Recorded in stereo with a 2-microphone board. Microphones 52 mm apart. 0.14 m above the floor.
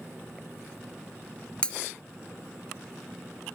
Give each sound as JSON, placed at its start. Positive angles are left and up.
{"t": 1.6, "sound": "breaking glass", "side_deg": 20}